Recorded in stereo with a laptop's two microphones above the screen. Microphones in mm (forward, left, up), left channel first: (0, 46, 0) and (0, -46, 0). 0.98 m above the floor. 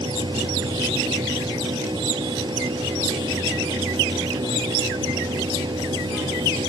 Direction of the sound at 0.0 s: 55° right (ahead or behind).